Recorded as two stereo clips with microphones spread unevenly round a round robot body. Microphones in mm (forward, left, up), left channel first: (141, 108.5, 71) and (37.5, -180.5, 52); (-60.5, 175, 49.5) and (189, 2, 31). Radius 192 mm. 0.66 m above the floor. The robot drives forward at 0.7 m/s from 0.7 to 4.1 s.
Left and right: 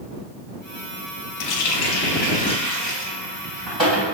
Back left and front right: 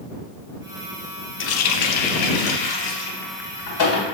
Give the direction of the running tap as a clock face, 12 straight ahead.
9 o'clock.